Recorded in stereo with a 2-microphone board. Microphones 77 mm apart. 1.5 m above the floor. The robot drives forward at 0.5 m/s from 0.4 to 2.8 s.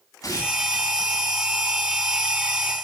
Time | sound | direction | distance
0.2 | tearing paper | 55° left (ahead or behind) | 9.5 m